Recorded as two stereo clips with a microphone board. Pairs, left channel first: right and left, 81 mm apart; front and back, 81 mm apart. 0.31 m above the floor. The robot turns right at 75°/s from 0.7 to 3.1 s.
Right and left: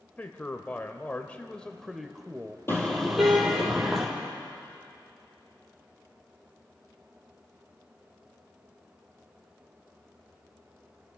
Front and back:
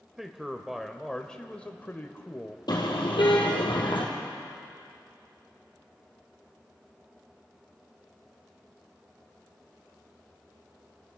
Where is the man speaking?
105° right, 1.1 m; by 2.6 s 40° left, 1.1 m.